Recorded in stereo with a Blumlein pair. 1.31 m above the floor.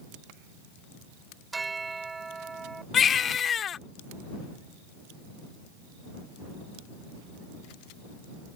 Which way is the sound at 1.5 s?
10° right.